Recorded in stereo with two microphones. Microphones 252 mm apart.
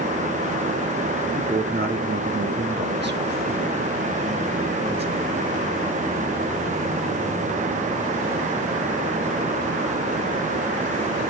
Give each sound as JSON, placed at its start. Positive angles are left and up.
{"t": 1.3, "sound": "a man speaking", "side_deg": -30, "distance_m": 1.2}